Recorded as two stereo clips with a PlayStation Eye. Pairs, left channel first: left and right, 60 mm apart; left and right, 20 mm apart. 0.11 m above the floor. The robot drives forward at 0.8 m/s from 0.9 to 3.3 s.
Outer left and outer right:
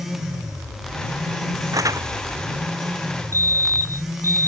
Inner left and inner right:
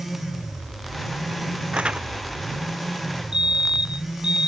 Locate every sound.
1.7 s crumpling: 75° right (ahead or behind); by 2.1 s 80° right
3.3 s a fire alarm: 60° right (ahead or behind)